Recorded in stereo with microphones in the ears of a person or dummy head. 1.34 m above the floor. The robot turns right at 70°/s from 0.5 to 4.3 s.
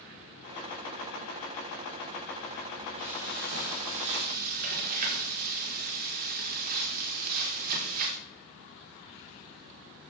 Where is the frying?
135° right, 3.5 m; by 8.2 s 45° right, 3.5 m.